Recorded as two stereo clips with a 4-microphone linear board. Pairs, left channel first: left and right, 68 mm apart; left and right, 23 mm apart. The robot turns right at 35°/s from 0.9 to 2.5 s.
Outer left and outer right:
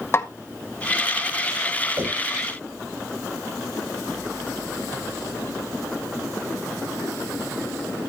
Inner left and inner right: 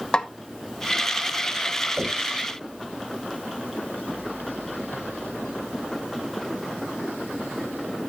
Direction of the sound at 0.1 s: 40° left (ahead or behind).